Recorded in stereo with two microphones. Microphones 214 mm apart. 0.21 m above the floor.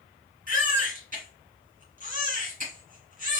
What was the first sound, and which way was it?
A baby crying, 40° right (ahead or behind).